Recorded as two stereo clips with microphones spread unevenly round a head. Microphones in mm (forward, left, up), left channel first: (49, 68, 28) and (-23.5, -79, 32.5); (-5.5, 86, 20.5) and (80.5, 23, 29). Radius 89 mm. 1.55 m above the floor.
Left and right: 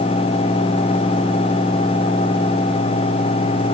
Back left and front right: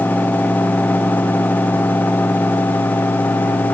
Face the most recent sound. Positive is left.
No sound to turn to.